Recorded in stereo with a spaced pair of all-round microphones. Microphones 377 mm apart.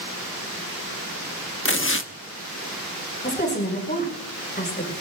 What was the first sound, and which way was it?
Tearing paper, 35° left (ahead or behind).